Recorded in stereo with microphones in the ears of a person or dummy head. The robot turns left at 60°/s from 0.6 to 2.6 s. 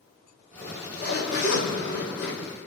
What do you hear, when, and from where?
0.6 s a zipper: 160° left, 3.5 m; by 2.7 s 40° left, 3.5 m